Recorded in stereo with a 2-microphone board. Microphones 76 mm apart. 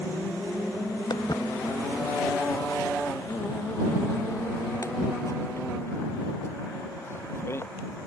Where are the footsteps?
65° left (ahead or behind); by 7.7 s 35° left (ahead or behind).